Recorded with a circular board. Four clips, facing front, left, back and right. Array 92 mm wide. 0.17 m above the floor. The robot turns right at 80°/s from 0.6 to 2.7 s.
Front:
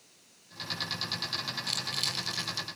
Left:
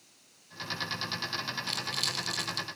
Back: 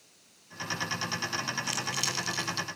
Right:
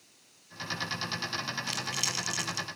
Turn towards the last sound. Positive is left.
turn(degrees=-70)